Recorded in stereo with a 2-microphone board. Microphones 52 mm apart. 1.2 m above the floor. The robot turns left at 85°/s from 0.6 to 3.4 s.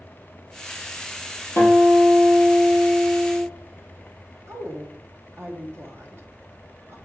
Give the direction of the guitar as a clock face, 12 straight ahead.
8 o'clock.